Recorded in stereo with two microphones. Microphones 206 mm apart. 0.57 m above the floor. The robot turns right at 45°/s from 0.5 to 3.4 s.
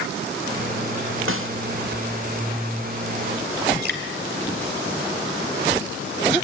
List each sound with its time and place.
1.3 s a snare drum: 80° right, 1.4 m; by 1.5 s 85° right, 1.4 m
3.8 s dripping: 55° right (ahead or behind), 2.5 m